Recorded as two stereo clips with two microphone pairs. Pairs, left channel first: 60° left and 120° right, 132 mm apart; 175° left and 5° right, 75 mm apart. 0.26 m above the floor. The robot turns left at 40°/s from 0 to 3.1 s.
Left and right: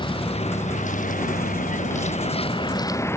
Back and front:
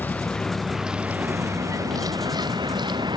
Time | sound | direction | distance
0.0 | a vehicle | 115° left | ?